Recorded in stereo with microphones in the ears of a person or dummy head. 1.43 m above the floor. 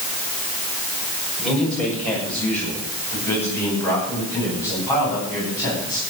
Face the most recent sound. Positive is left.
turn(degrees=20)  # may be behind; listen again after turning